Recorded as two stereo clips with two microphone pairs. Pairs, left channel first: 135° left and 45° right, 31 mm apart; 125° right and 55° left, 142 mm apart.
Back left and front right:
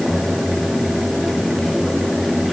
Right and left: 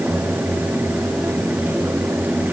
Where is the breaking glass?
I don't hear breaking glass.